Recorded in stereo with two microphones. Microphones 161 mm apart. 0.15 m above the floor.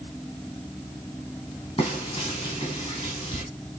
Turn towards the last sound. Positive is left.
turn(degrees=40)  # may be behind; listen again after turning